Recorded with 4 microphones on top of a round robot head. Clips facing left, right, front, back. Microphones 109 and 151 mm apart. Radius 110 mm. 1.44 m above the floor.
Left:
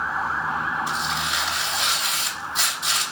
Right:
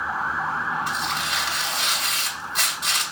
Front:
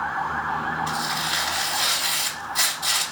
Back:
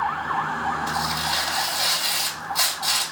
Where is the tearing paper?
75° right, 3 m.